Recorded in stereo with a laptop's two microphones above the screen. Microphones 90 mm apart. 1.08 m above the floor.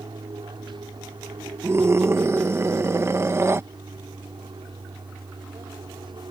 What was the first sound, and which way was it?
An aircraft, 60° right (ahead or behind).